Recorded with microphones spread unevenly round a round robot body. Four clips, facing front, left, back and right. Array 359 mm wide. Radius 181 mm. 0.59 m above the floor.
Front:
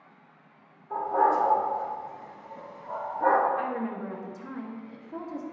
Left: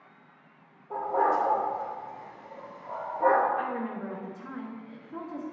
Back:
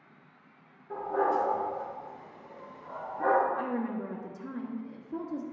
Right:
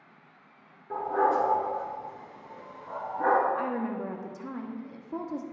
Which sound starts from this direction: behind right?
A woman speaking, at 3.5 s.